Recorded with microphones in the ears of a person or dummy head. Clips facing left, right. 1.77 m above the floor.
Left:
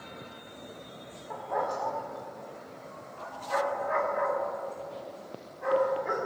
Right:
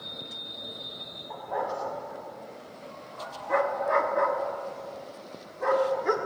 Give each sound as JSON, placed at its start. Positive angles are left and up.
{"t": 1.3, "sound": "a dog barking", "side_deg": 10, "distance_m": 1.2}